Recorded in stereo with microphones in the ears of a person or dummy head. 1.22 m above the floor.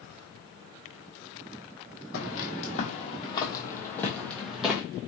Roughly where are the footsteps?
Left.